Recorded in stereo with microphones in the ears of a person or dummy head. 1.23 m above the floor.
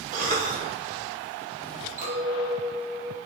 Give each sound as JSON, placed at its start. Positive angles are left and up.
{"t": 0.1, "sound": "a cough", "side_deg": -45, "distance_m": 2.5}
{"t": 2.0, "sound": "a clink", "side_deg": -50, "distance_m": 4.0}